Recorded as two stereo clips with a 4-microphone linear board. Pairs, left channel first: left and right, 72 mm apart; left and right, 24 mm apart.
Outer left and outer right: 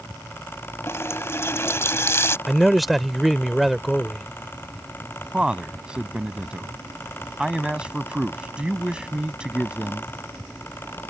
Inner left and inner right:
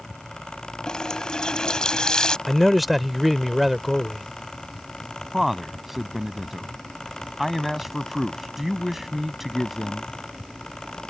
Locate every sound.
0.9 s a running tap: 35° left (ahead or behind)
2.5 s a man speaking: 5° right (ahead or behind)
5.3 s a man speaking: 10° right (ahead or behind)